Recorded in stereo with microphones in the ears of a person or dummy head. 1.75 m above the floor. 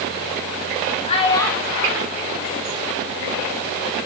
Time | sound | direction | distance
1.1 | a child speaking | 35° left (ahead or behind) | 1.2 m